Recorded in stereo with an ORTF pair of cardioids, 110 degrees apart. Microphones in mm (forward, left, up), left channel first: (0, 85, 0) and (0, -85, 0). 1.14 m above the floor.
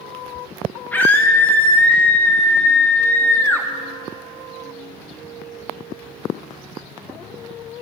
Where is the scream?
10° left, 1.1 m.